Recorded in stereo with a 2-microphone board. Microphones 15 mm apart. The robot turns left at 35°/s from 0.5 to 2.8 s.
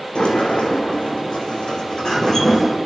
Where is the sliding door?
95° left, 2 m; by 2.8 s 15° left, 2 m.